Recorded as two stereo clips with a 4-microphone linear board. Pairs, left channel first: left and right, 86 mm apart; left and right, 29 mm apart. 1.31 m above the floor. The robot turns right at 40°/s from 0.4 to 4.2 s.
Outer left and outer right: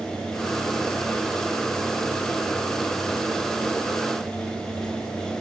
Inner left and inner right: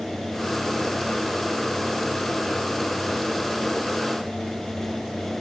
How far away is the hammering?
I don't hear hammering.